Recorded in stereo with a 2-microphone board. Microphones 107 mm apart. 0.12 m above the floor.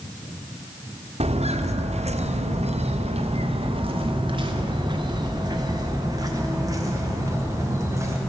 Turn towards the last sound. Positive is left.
turn(degrees=-25)  # may be behind; listen again after turning